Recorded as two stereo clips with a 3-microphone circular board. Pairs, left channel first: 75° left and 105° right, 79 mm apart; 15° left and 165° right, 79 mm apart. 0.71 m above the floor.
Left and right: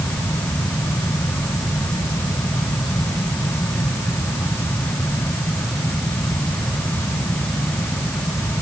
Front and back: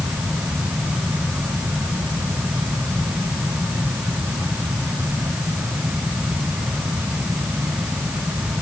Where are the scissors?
I don't hear scissors.